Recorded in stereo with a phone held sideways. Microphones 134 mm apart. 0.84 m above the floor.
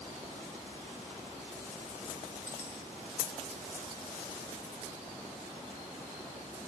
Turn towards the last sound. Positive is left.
turn(degrees=-20)  # may be behind; listen again after turning